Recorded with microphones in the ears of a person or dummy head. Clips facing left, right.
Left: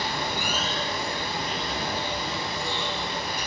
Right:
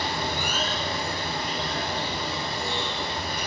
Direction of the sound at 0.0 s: 25° right (ahead or behind).